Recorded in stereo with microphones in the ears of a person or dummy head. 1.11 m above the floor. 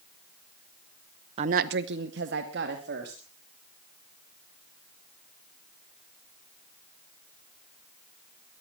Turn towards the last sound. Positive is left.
turn(degrees=-60)  # may be behind; listen again after turning